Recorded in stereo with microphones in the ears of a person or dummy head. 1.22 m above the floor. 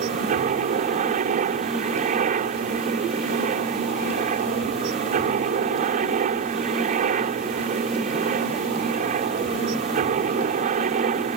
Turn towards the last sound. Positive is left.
turn(degrees=-45)  # may be behind; listen again after turning